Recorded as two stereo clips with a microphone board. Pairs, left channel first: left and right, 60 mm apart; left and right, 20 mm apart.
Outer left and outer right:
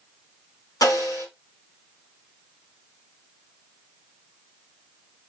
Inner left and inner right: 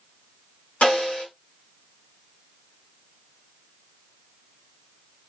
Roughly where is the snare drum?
Left.